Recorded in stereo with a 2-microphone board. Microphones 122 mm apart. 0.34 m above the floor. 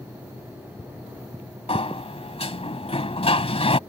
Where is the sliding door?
55° left (ahead or behind).